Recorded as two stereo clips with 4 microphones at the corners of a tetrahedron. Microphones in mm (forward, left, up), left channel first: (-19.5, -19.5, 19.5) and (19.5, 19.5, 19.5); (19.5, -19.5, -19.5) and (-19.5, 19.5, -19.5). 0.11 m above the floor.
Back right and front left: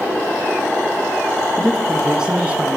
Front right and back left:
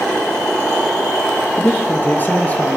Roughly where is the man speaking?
Ahead right.